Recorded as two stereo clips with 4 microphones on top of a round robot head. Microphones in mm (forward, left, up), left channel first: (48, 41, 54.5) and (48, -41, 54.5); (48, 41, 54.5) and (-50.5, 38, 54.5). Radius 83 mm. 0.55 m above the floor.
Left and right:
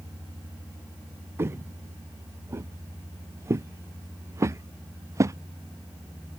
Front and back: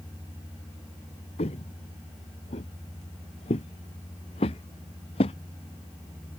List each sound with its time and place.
1.4 s footsteps: 30° right; by 5.4 s 40° right